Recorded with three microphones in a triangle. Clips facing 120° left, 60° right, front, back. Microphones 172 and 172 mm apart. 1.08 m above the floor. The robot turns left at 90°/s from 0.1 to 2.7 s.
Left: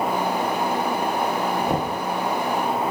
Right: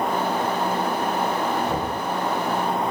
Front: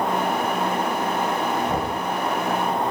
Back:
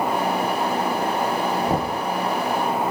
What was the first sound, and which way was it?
Knocking, 150° left.